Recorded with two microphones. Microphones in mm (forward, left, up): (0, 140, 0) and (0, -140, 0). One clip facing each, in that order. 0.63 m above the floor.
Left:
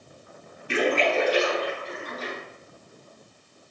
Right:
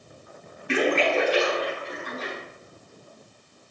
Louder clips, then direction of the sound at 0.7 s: Right 1 dB; 75° right (ahead or behind).